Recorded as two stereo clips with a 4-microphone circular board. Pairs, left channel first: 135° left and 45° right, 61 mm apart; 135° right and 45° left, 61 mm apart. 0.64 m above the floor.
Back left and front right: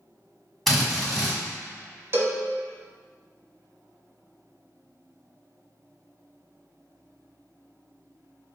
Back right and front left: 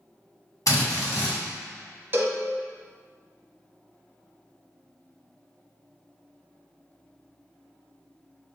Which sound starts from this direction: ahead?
A cowbell, at 2.1 s.